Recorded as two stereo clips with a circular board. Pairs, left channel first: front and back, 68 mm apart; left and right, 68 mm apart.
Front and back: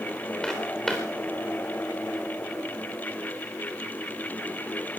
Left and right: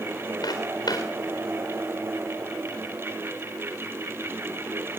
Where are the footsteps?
85° left, 3.5 m.